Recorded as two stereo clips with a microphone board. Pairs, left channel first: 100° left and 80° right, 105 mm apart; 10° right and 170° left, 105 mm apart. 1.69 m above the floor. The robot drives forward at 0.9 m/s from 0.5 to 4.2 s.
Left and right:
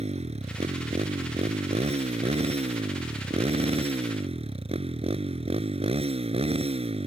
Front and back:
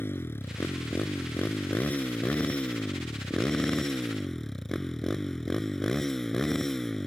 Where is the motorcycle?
80° right; by 7.1 s 100° right.